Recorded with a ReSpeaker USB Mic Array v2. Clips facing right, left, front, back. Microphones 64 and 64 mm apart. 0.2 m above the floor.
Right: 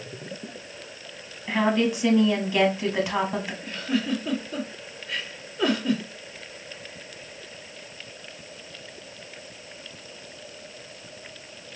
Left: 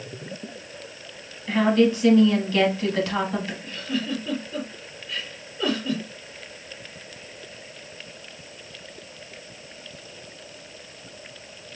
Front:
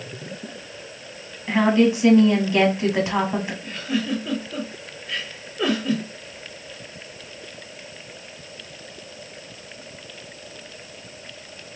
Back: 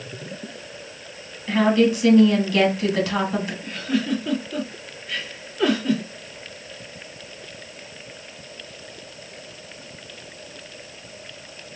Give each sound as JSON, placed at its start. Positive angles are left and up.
{"t": 1.5, "sound": "a woman speaking", "azimuth_deg": -35, "distance_m": 1.3}
{"t": 3.6, "sound": "a giggle", "azimuth_deg": -85, "distance_m": 3.5}